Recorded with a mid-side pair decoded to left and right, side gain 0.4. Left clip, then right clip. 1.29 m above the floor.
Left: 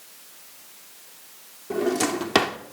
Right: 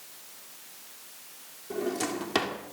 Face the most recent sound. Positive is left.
turn(degrees=55)